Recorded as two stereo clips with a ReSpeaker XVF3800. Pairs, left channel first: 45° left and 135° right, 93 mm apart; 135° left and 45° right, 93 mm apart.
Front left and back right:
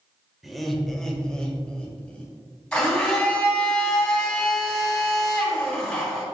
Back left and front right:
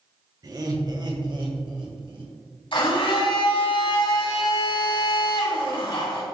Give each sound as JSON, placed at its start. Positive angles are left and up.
{"t": 0.4, "sound": "laughter", "azimuth_deg": -45, "distance_m": 1.4}
{"t": 2.7, "sound": "a blender", "azimuth_deg": 125, "distance_m": 3.5}